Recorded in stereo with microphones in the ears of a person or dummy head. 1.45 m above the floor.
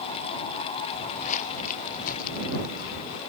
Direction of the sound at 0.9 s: 40° left (ahead or behind).